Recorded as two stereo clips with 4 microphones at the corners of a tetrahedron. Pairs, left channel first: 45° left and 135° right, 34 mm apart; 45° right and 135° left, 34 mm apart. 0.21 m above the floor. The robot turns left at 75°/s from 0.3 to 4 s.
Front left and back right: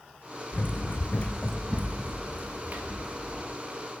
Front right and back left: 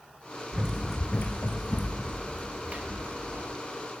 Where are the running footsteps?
80° left, 0.7 m; by 3.5 s 115° left, 1.6 m.